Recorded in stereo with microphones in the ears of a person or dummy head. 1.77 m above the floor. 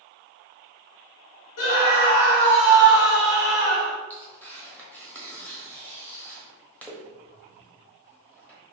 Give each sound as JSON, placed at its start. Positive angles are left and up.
{"t": 1.6, "sound": "a scream", "side_deg": 90, "distance_m": 1.5}
{"t": 4.1, "sound": "tearing paper", "side_deg": 10, "distance_m": 1.0}